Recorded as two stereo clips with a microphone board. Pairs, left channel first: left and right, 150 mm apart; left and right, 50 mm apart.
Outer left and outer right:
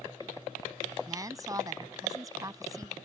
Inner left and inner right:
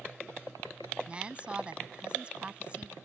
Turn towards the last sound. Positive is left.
turn(degrees=-25)  # may be behind; listen again after turning